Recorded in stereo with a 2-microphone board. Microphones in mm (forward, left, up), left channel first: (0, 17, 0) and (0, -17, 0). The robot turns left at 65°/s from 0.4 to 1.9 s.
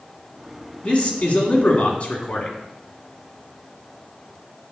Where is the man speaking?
130° left, 1.5 m; by 2.6 s 60° left, 1.5 m.